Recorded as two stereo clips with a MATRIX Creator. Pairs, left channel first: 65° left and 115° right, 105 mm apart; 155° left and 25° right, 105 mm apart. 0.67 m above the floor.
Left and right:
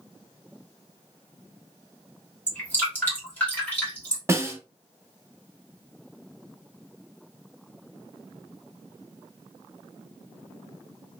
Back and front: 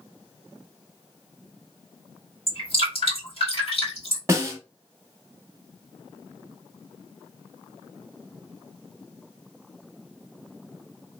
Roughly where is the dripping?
Behind left.